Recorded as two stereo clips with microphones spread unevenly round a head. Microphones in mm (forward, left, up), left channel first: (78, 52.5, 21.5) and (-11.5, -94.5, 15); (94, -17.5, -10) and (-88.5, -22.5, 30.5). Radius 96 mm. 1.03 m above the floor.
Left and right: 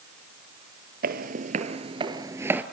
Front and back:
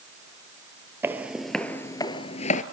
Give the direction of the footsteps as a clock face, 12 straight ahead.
4 o'clock.